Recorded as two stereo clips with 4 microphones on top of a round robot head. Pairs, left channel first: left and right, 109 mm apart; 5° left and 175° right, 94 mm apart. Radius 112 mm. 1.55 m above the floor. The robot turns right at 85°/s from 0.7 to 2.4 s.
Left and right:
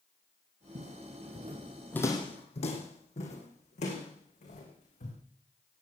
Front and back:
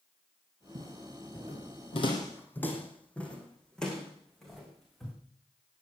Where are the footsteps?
130° right, 2.5 m; by 5.1 s 90° left, 6.5 m.